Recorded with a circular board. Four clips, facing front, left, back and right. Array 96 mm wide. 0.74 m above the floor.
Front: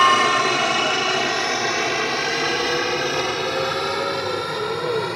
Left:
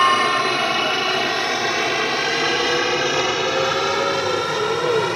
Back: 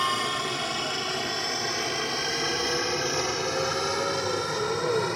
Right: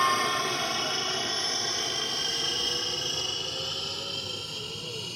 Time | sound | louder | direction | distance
0.0 | a helicopter | left 9 dB, front 12 dB | 40° left | ?